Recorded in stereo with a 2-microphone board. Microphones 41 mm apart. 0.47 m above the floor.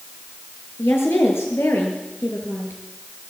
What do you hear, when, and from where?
0.8 s a woman speaking: 80° left, 7 m